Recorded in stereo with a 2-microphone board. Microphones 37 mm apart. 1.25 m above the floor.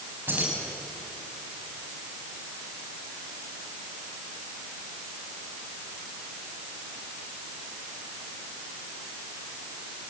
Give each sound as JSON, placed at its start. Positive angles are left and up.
{"t": 0.3, "sound": "keys jangling", "side_deg": -75, "distance_m": 6.5}